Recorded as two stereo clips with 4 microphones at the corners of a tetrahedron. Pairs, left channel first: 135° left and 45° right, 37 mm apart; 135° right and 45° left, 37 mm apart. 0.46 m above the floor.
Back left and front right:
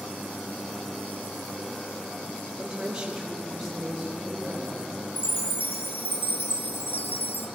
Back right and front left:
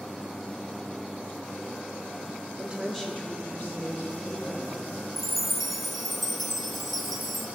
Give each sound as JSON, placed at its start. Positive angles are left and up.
{"t": 2.6, "sound": "a woman speaking", "azimuth_deg": 20, "distance_m": 0.9}
{"t": 5.2, "sound": "a chime", "azimuth_deg": 135, "distance_m": 0.7}